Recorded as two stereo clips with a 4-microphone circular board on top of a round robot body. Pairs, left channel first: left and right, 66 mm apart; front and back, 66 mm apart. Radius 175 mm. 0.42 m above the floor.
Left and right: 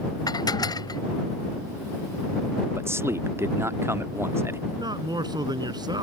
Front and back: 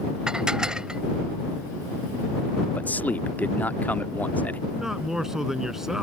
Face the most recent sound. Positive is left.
turn(degrees=-95)